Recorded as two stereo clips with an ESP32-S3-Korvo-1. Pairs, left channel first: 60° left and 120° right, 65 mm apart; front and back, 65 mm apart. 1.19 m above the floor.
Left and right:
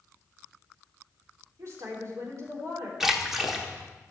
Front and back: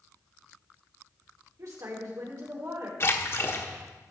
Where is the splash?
35° right, 1.2 m.